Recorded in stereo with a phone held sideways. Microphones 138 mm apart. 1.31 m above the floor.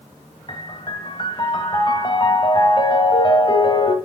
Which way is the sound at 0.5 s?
35° left (ahead or behind).